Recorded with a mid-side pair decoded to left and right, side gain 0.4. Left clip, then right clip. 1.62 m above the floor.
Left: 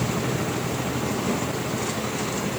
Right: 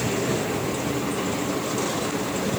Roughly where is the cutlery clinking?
I don't hear cutlery clinking.